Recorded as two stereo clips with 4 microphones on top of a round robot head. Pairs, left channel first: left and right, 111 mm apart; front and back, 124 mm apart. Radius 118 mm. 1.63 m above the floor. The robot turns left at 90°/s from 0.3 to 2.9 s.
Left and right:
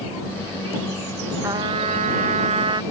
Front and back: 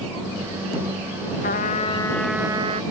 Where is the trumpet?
15° right; by 2.8 s 140° right.